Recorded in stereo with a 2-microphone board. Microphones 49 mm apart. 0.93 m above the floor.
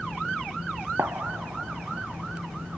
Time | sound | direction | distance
1.0 | a gunshot | 65° right (ahead or behind) | ?